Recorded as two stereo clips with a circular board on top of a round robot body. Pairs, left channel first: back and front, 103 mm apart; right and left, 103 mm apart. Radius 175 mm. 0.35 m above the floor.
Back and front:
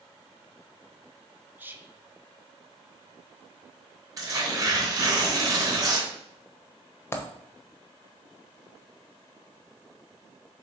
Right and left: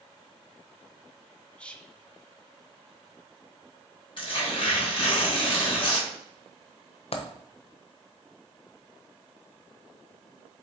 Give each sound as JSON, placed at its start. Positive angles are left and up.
{"t": 1.6, "sound": "whispering", "azimuth_deg": -30, "distance_m": 1.1}
{"t": 4.2, "sound": "tearing paper", "azimuth_deg": -55, "distance_m": 3.0}
{"t": 7.1, "sound": "a dropped coin", "azimuth_deg": -115, "distance_m": 1.0}